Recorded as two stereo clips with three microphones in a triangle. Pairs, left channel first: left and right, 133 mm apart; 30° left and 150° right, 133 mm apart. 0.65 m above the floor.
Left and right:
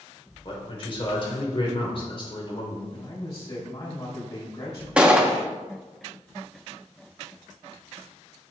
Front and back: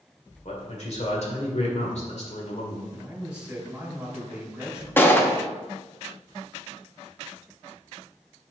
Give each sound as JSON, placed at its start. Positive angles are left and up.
{"t": 0.5, "sound": "a man speaking", "azimuth_deg": 50, "distance_m": 1.9}
{"t": 2.9, "sound": "a man speaking", "azimuth_deg": 130, "distance_m": 3.0}
{"t": 5.0, "sound": "a gunshot", "azimuth_deg": -20, "distance_m": 0.8}